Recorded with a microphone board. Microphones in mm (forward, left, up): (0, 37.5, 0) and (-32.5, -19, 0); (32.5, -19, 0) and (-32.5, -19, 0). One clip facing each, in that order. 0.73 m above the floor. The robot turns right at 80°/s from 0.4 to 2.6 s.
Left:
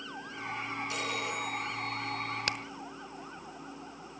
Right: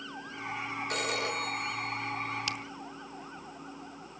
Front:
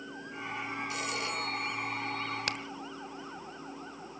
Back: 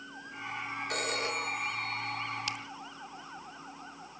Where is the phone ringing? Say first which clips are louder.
Right 4 dB, back 5 dB; 155° right, 5 m; by 2.5 s 30° right, 5 m.